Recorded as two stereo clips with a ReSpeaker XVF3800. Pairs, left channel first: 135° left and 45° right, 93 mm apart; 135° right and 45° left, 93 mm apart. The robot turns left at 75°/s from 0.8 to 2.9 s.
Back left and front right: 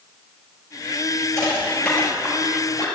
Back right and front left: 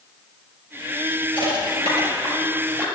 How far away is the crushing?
About 6 m.